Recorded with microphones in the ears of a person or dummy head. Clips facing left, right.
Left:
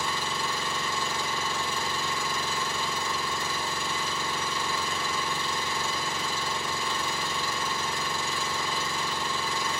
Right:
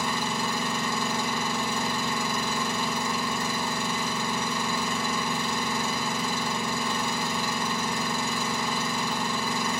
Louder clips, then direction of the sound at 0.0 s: Right 3 dB; 40° right (ahead or behind).